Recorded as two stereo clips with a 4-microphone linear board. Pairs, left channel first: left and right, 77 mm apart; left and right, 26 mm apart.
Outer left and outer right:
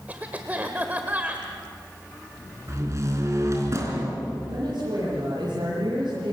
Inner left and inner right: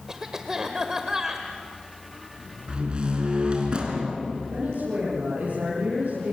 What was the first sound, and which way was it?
A cough, 20° right (ahead or behind).